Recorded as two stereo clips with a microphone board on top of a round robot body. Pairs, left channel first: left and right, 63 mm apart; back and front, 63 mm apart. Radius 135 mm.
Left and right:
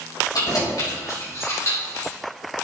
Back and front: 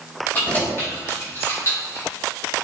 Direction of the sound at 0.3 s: 115° left.